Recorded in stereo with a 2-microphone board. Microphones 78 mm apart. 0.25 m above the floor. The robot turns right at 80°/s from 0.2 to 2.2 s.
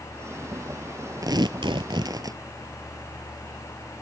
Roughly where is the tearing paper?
Behind right.